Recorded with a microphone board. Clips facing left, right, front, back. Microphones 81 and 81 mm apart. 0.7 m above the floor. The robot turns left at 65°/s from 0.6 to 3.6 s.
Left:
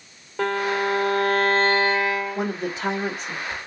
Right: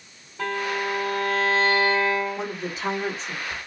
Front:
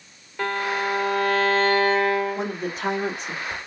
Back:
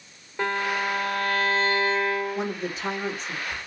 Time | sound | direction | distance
0.4 | a violin | 105° left | 1.6 m
2.4 | a woman speaking | 60° left | 2.5 m